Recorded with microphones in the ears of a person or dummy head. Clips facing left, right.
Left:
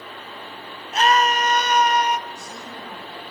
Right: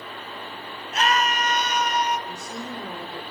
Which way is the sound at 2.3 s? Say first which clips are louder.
Right 3 dB; 80° right.